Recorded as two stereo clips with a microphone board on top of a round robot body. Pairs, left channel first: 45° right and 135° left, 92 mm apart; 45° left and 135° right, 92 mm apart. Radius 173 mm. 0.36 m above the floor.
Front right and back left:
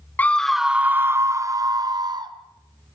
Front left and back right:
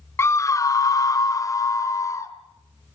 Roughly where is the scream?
Ahead.